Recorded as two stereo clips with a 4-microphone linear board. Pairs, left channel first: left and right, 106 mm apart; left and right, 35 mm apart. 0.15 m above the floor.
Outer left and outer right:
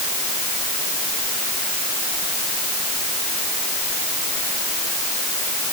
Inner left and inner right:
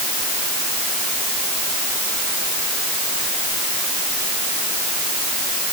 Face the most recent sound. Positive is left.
No sound to turn to.